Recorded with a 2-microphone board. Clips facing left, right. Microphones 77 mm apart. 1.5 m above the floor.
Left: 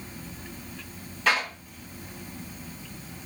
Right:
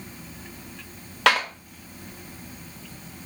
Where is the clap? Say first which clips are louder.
Right 4 dB; 70° right (ahead or behind), 0.7 m.